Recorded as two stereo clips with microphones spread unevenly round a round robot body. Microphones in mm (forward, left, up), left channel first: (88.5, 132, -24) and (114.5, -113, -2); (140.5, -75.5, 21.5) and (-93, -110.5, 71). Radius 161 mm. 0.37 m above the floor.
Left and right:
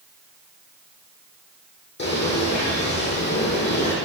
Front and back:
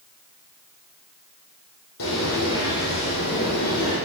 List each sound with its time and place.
2.0 s a bird: 50° left, 5.5 m